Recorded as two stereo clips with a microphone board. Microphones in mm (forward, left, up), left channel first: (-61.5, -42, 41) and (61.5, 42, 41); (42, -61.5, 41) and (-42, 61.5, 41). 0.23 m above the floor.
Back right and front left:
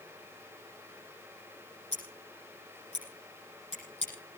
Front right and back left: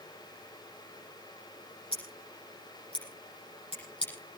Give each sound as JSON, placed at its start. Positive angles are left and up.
{"t": 1.9, "sound": "scissors", "azimuth_deg": -105, "distance_m": 10.0}